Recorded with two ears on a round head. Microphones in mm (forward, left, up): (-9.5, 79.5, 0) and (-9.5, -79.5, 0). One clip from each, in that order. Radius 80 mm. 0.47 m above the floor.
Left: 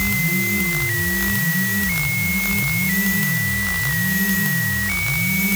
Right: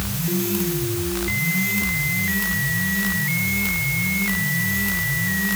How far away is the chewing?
I don't hear chewing.